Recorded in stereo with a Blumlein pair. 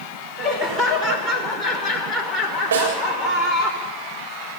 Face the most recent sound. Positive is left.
turn(degrees=-65)